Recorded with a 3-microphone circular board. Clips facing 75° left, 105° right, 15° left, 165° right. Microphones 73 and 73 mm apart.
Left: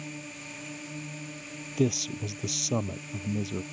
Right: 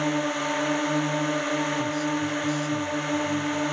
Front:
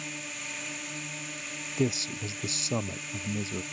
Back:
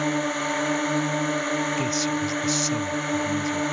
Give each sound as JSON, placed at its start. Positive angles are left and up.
{"t": 0.0, "sound": "a drone", "azimuth_deg": -130}
{"t": 1.8, "sound": "a man speaking", "azimuth_deg": 75}